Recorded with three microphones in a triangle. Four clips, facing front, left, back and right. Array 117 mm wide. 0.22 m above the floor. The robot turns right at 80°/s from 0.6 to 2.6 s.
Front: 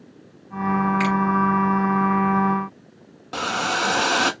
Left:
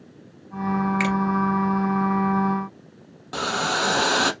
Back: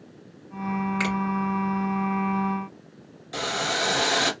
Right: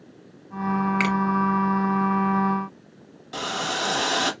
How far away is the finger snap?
About 1.4 m.